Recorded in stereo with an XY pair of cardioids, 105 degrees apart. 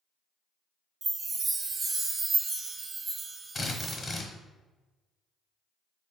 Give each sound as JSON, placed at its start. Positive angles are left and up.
{"t": 1.0, "sound": "a chime", "azimuth_deg": -35, "distance_m": 0.6}
{"t": 3.5, "sound": "a drill", "azimuth_deg": 40, "distance_m": 0.9}